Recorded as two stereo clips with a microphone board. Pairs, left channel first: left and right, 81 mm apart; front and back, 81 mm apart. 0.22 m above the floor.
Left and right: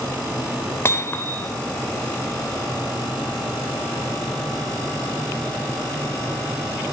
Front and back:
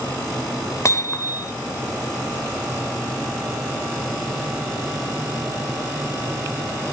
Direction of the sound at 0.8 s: 40° left.